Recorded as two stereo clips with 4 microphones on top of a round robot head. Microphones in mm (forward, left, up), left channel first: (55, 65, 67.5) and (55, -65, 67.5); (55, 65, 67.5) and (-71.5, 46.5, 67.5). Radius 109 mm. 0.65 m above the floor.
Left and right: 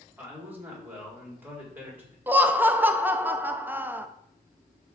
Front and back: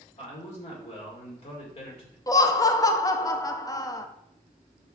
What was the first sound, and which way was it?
A man speaking, 15° right.